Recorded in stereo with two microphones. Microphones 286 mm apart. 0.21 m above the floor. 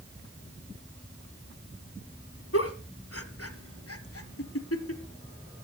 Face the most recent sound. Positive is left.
turn(degrees=50)  # may be behind; listen again after turning